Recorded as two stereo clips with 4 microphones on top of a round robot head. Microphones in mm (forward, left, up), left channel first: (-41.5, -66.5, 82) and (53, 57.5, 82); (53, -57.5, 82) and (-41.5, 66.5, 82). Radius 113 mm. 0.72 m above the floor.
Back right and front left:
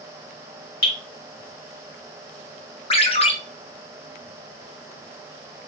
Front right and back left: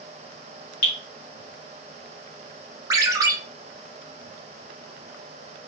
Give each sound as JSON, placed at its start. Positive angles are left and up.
{"t": 0.8, "sound": "dripping", "azimuth_deg": -95, "distance_m": 2.0}
{"t": 2.9, "sound": "a ringtone", "azimuth_deg": -170, "distance_m": 0.8}